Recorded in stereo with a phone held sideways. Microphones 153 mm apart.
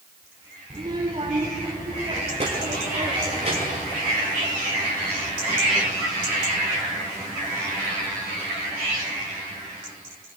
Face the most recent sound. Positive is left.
turn(degrees=-55)  # may be behind; listen again after turning